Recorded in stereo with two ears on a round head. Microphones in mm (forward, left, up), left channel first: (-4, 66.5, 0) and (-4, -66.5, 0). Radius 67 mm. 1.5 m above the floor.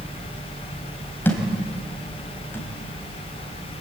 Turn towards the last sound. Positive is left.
turn(degrees=15)  # may be behind; listen again after turning